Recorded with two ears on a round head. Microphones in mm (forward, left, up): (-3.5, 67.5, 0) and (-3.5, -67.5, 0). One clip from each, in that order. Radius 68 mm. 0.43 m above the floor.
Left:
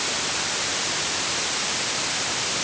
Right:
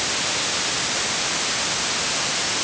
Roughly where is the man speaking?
No man speaking in this recording.